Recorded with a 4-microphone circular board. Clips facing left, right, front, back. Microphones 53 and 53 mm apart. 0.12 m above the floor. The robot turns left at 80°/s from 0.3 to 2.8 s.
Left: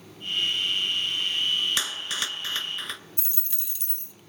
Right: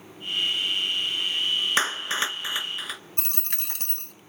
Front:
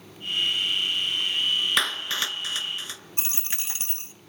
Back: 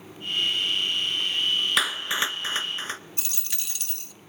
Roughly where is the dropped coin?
Ahead right.